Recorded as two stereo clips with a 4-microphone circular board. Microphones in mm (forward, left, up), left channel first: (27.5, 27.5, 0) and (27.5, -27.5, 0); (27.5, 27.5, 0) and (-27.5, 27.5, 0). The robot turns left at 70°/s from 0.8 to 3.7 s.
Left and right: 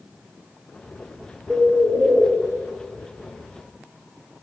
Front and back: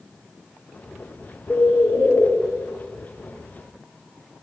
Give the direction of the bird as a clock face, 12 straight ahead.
1 o'clock.